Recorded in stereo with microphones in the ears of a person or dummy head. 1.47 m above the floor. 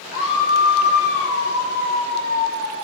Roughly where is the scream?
Left.